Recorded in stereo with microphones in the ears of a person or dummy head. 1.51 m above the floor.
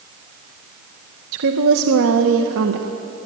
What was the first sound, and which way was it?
A woman speaking, 70° right (ahead or behind).